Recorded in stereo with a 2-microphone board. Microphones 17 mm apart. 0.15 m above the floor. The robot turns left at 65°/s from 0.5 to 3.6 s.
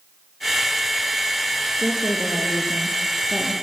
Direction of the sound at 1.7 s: 70° right.